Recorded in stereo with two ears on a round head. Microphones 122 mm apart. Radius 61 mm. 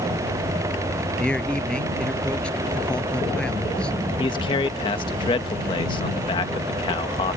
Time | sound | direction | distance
1.2 | a man speaking | 5° left (ahead or behind) | ?
4.2 | a man speaking | 35° left (ahead or behind) | ?